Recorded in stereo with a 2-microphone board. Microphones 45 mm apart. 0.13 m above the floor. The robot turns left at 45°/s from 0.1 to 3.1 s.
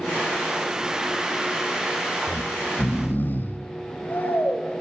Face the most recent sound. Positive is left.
turn(degrees=60)